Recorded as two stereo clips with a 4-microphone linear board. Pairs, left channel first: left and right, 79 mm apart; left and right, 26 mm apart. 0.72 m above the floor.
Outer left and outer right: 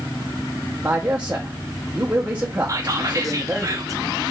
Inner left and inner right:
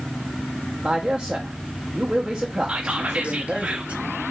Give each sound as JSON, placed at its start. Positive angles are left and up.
{"t": 0.8, "sound": "a man speaking", "side_deg": -20, "distance_m": 0.8}
{"t": 2.7, "sound": "whispering", "side_deg": -45, "distance_m": 0.8}